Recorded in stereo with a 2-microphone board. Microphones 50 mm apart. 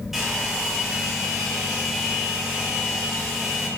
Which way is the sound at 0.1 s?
5° right (ahead or behind).